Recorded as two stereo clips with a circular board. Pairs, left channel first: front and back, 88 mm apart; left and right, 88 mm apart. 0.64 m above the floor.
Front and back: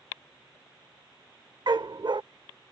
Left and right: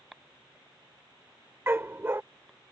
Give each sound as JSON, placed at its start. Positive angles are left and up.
{"t": 1.7, "sound": "a dog barking", "azimuth_deg": -150}